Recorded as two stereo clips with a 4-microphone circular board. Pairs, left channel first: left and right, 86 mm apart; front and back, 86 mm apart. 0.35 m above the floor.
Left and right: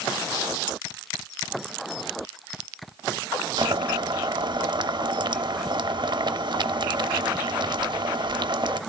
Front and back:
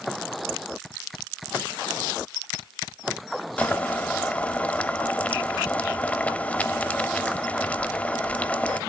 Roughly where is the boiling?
Right.